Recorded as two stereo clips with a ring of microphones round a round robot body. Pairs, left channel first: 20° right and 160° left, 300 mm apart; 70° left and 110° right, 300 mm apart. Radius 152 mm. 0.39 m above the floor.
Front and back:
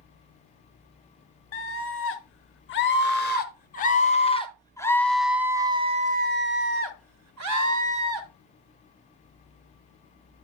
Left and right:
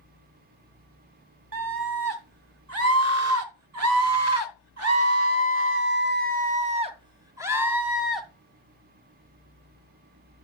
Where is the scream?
70° right, 2.5 m; by 8.3 s 155° left, 1.5 m.